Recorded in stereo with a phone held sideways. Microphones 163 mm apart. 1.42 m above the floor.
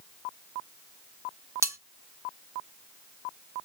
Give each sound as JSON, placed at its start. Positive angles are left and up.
{"t": 1.6, "sound": "cutlery clinking", "side_deg": -15, "distance_m": 0.5}